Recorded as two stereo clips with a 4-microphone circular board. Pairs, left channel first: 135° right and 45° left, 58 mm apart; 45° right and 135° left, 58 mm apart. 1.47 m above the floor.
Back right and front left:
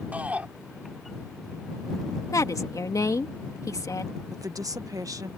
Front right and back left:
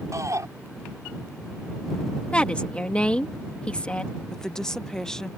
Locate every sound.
0.1 s a shout: 110° left
2.3 s a woman speaking: 115° right
4.3 s a woman speaking: 35° left